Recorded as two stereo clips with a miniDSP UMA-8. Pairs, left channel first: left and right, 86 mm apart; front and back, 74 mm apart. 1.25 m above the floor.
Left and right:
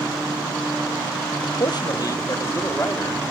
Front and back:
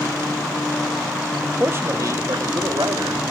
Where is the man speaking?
120° left, 1.2 m; by 3.2 s 155° left, 2.5 m.